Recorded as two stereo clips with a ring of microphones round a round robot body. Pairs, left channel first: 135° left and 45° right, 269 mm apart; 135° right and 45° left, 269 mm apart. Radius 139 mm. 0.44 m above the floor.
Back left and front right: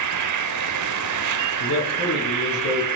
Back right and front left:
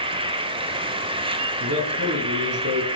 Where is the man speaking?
95° left, 7.5 m.